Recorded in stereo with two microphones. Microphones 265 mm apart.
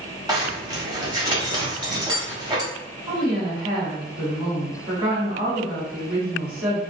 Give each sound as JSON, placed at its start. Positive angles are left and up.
{"t": 0.3, "sound": "a zipper", "side_deg": -15, "distance_m": 1.2}
{"t": 3.1, "sound": "a woman speaking", "side_deg": -40, "distance_m": 1.7}